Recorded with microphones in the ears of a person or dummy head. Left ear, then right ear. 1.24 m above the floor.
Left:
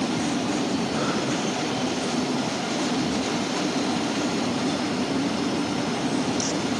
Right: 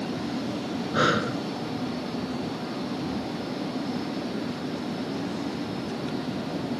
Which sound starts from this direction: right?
Breathing, at 0.9 s.